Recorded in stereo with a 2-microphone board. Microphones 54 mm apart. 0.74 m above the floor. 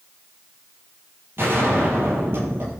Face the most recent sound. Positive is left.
turn(degrees=-45)  # may be behind; listen again after turning